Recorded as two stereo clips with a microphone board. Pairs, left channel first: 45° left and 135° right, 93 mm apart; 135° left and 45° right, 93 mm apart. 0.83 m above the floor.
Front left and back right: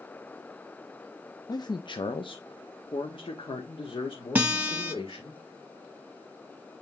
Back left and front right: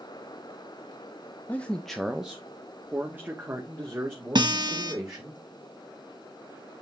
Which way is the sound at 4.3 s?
65° right.